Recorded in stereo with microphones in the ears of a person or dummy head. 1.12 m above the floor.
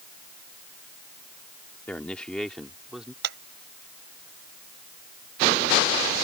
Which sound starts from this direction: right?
A clap, at 3.2 s.